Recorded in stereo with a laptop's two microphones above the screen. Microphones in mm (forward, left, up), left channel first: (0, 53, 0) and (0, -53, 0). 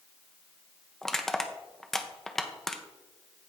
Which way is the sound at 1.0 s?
5° left (ahead or behind).